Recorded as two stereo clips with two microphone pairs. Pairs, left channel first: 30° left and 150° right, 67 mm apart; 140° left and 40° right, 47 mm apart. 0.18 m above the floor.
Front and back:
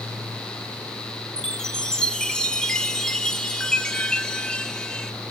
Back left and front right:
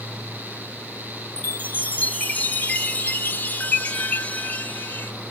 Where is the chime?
100° left, 0.7 m.